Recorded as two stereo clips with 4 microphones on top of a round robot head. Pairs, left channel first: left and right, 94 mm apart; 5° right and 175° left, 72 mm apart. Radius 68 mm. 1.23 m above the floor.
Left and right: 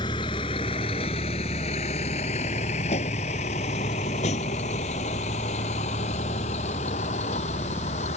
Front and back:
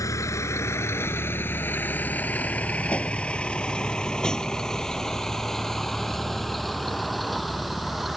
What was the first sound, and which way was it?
A vehicle, 35° left.